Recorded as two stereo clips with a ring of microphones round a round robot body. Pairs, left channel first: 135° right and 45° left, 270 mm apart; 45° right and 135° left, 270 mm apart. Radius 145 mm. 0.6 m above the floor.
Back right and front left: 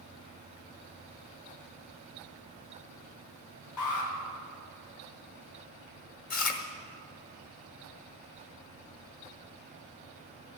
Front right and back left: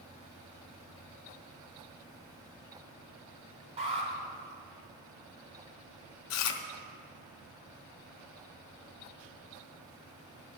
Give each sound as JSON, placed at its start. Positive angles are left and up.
{"t": 3.8, "sound": "an alarm", "azimuth_deg": -155, "distance_m": 3.5}
{"t": 6.3, "sound": "chewing", "azimuth_deg": -75, "distance_m": 1.0}